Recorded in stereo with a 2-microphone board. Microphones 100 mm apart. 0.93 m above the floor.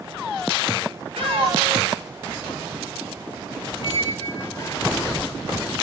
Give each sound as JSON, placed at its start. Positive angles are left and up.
{"t": 1.2, "sound": "a cat meowing", "side_deg": -75, "distance_m": 2.0}
{"t": 3.8, "sound": "a squeak", "side_deg": 35, "distance_m": 1.0}